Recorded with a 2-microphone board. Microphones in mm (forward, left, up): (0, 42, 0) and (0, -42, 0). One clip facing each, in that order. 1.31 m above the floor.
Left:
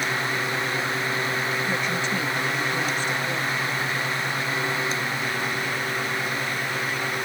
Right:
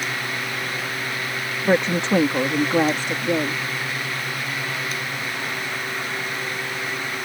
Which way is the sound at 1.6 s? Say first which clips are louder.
Right 6 dB; 60° right (ahead or behind).